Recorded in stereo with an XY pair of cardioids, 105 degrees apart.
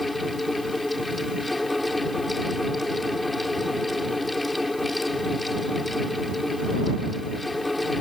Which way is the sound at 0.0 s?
15° left.